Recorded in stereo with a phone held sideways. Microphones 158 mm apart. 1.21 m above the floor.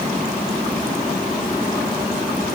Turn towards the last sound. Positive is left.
No sound to turn to.